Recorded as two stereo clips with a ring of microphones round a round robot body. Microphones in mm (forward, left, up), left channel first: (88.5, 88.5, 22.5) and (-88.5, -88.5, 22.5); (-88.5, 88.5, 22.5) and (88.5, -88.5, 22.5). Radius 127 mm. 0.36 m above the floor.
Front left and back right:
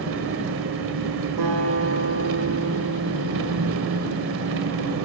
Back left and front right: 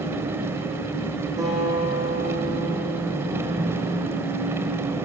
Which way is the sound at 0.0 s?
125° right.